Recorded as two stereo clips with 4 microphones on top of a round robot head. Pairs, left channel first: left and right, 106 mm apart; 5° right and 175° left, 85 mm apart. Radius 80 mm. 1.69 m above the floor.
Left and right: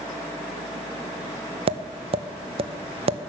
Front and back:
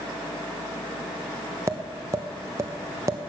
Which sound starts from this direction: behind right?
Tapping, at 1.7 s.